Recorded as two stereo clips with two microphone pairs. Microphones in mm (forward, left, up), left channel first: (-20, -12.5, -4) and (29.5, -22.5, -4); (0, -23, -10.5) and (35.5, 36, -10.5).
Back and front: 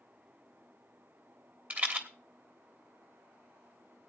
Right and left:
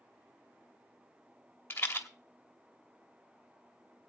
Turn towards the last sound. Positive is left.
turn(degrees=-65)